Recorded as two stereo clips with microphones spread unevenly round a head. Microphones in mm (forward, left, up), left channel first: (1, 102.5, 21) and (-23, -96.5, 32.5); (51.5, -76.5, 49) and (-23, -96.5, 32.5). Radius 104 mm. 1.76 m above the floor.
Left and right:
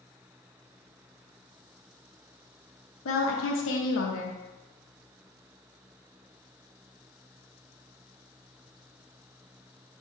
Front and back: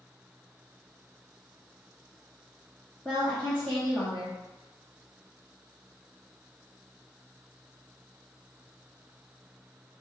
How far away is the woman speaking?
About 0.9 m.